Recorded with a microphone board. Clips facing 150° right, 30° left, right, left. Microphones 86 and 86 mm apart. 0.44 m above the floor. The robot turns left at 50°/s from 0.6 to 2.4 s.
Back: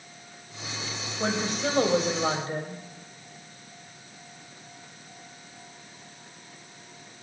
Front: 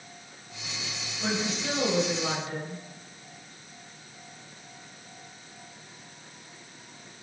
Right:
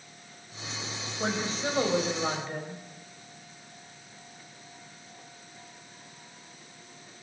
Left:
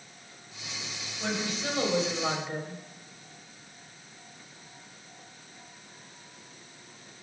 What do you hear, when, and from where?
1.2 s a woman speaking: 125° right, 2.5 m; by 2.8 s 175° left, 2.5 m